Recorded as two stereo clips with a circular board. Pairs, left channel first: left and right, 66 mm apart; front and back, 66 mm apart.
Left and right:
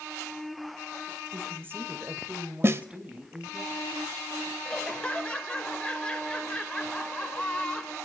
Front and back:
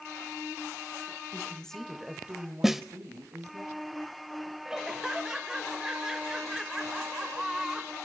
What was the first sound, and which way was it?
A woman speaking, 50° right.